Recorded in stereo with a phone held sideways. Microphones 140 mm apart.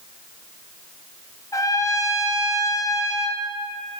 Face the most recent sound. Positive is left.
turn(degrees=25)  # may be behind; listen again after turning